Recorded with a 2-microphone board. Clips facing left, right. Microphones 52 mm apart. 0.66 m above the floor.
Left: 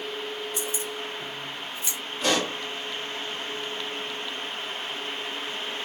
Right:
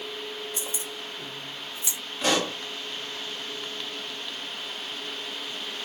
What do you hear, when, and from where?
0.6 s keys jangling: 30° right (ahead or behind), 2.5 m; by 2.0 s 15° right (ahead or behind), 1.7 m
2.2 s a pop: 15° right (ahead or behind), 1.7 m